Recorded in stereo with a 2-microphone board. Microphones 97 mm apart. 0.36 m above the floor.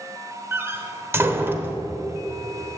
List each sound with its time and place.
0.5 s a door slam: 25° right (ahead or behind), 0.9 m